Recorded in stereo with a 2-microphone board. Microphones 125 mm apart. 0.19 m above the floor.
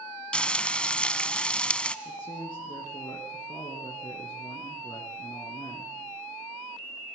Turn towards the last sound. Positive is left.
turn(degrees=45)  # may be behind; listen again after turning